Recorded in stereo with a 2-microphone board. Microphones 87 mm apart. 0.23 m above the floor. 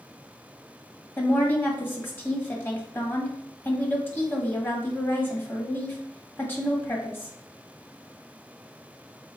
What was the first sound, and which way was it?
A woman speaking, 25° left (ahead or behind).